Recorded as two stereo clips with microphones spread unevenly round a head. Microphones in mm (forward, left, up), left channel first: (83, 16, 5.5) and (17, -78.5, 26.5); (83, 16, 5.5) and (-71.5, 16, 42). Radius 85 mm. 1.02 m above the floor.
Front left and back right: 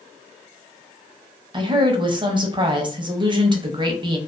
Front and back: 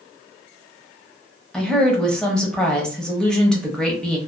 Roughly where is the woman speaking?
Right.